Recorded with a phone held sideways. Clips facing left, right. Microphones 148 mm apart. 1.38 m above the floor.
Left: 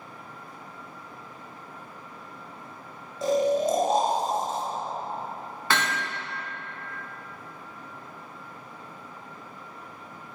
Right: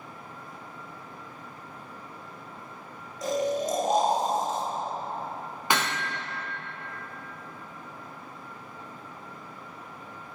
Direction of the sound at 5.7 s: 15° right (ahead or behind).